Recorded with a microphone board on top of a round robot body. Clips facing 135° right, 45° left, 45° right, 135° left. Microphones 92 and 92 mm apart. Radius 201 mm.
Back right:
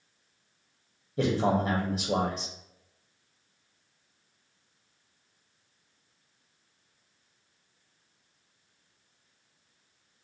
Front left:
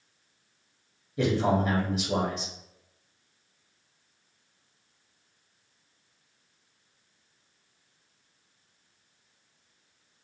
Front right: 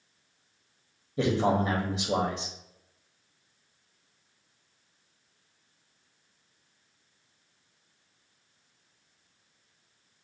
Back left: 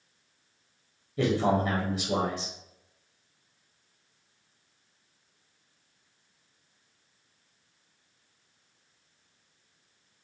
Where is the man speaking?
105° right, 0.8 m.